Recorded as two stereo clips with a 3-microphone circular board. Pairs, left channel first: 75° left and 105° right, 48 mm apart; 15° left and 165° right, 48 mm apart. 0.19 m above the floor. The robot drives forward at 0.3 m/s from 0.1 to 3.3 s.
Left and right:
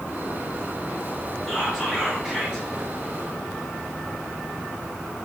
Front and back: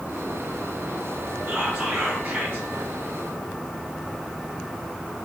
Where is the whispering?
Straight behind, 1.5 m.